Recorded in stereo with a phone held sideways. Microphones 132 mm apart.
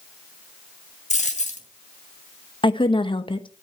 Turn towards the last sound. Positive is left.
turn(degrees=35)  # may be behind; listen again after turning